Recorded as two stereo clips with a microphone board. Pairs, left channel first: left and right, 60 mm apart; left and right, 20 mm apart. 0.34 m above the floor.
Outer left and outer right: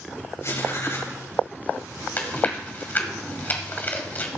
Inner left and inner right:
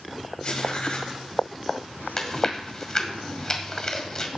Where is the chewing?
30° left (ahead or behind), 1.9 m.